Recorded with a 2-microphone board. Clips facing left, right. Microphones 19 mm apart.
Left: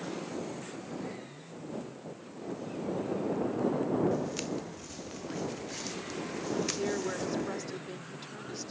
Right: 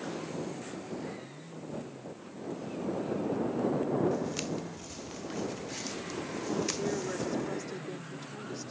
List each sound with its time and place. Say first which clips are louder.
4.1 s footsteps: even; 5° right (ahead or behind); by 7.5 s 5° left (ahead or behind)
6.8 s a woman speaking: even; 15° left (ahead or behind)